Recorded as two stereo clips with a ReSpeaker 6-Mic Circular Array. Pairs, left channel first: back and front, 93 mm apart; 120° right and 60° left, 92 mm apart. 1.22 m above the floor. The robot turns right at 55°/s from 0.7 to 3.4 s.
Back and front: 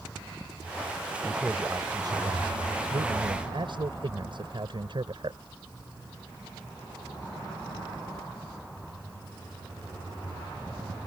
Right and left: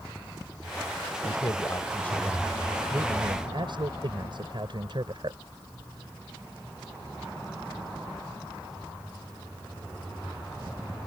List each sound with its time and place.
1.2 s a man speaking: 90° right; by 5.4 s 30° left